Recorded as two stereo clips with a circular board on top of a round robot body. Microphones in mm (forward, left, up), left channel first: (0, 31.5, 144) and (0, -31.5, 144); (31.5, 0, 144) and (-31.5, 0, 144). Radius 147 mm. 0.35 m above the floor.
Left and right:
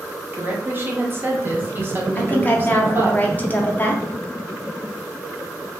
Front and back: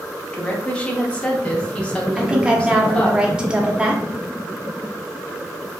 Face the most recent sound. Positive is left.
turn(degrees=120)